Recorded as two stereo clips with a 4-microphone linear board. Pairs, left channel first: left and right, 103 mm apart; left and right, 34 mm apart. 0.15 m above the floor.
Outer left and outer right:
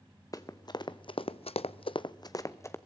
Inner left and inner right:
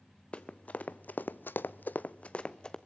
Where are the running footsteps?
35° left (ahead or behind), 1.1 m; by 2.8 s 25° left (ahead or behind), 0.9 m.